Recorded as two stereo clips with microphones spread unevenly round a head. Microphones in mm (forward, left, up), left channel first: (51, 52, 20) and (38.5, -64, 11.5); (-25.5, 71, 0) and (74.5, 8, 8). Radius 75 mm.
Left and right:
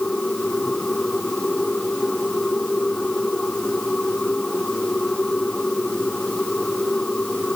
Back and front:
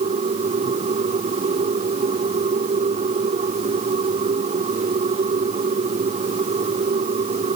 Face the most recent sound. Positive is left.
turn(degrees=0)